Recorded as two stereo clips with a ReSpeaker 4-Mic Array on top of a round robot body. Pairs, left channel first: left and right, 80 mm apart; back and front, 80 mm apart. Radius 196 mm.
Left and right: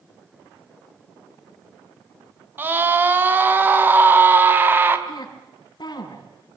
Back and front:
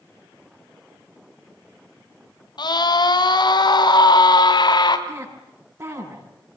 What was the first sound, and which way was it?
A scream, 155° right.